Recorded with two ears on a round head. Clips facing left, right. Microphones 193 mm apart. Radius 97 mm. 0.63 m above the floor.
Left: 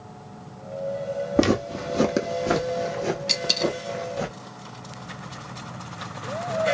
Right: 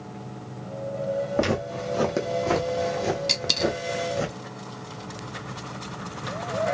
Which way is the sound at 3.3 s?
Centre (ahead or behind).